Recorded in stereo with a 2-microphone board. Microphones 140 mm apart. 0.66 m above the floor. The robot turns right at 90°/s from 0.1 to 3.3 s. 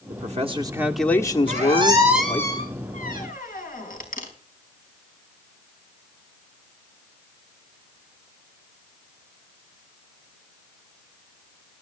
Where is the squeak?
70° right (ahead or behind), 4.5 m; by 4.3 s 80° left, 4.5 m.